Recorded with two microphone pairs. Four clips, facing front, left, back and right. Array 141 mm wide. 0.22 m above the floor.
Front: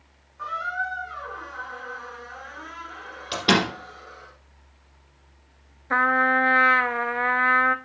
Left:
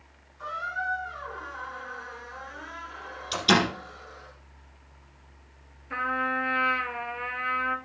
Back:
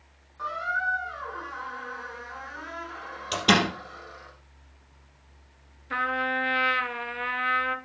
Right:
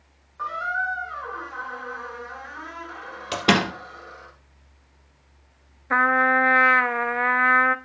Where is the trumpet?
55° right, 0.5 m.